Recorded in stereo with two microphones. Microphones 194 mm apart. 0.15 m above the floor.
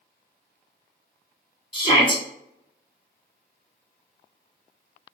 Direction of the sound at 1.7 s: 25° left (ahead or behind).